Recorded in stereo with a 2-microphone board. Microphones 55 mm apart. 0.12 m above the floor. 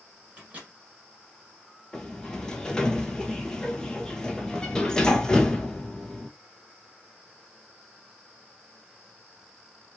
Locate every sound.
0.4 s a microwave: 20° right (ahead or behind), 1.3 m
1.9 s a sliding door: 15° left (ahead or behind), 0.5 m